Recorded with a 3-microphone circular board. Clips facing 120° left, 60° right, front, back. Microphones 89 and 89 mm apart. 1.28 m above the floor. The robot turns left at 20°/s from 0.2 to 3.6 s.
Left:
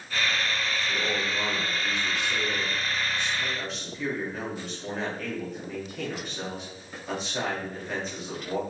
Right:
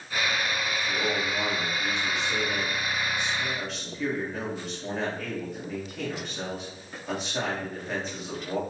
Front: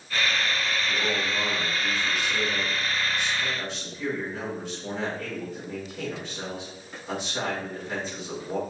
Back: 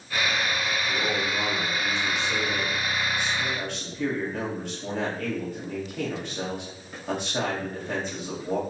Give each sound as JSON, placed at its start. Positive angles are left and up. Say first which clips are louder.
{"t": 0.9, "sound": "a man speaking", "louder": "right 2 dB, back 1 dB", "azimuth_deg": -95, "distance_m": 1.8}